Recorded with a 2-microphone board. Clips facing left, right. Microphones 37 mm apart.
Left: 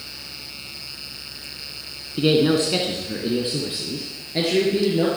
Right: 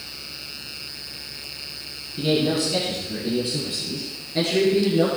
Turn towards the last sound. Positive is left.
turn(degrees=10)  # may be behind; listen again after turning